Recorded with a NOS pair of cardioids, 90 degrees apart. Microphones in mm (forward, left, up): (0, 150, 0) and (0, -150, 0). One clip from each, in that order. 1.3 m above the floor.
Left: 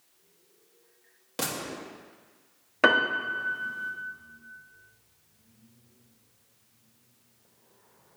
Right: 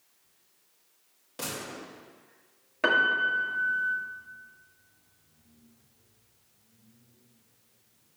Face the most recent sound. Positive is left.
turn(degrees=40)